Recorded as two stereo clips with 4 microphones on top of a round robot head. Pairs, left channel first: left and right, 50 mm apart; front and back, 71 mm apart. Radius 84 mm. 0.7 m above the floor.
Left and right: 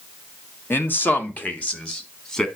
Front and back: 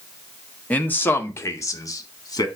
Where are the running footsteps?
No running footsteps in this recording.